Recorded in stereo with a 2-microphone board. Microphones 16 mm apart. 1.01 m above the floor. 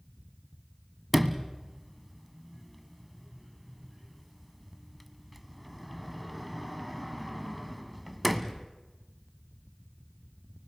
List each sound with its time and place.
1.1 s a sliding door: centre (ahead or behind), 1.1 m